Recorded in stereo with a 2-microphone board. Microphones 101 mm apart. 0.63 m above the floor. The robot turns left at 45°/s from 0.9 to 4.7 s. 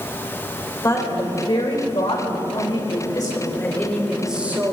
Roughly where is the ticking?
I don't hear ticking.